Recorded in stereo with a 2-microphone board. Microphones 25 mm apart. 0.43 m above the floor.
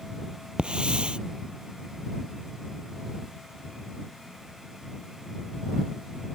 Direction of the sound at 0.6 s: 40° right (ahead or behind).